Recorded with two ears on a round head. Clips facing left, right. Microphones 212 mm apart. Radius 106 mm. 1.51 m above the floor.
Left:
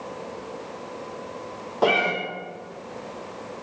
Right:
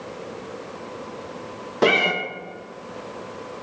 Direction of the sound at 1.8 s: 30° right (ahead or behind).